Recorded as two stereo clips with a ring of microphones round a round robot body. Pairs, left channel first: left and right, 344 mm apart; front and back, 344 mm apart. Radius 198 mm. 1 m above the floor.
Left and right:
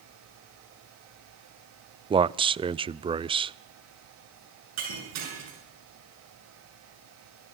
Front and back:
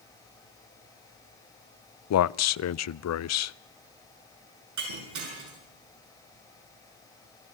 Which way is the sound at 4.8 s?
140° right.